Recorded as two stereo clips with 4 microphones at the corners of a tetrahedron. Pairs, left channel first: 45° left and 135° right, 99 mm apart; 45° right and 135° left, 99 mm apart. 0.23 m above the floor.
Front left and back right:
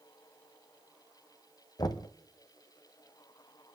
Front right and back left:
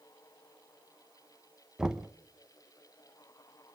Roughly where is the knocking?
Ahead left.